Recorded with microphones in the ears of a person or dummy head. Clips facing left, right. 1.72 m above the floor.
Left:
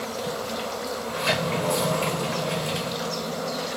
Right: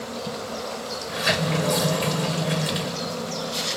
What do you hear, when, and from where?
1.1 s a sliding door: 20° right (ahead or behind), 1.0 m